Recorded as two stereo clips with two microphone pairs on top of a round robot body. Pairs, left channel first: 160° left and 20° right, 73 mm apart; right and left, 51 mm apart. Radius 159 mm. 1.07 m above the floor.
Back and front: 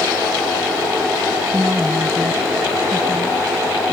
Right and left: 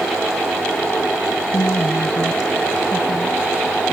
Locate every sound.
1.5 s a woman speaking: 95° right